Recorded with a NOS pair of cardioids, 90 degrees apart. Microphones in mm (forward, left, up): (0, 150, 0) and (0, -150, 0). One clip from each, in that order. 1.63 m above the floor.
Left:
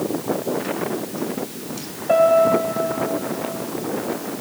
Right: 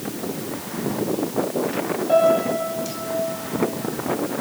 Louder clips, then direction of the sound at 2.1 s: Left 3 dB; 50° left.